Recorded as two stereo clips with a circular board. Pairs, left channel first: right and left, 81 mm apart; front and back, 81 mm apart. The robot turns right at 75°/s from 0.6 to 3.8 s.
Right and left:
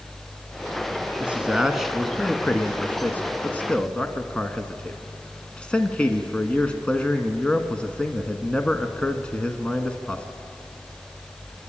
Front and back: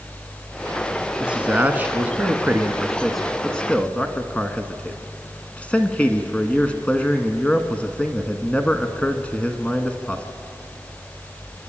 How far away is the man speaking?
About 1.1 m.